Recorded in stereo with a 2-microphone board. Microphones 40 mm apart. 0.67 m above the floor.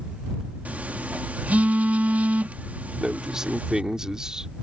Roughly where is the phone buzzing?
Right.